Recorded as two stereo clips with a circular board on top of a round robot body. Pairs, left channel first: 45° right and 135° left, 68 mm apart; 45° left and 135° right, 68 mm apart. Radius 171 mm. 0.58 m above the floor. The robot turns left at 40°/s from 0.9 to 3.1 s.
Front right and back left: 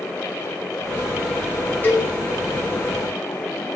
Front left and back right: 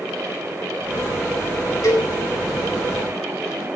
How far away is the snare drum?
No snare drum in this recording.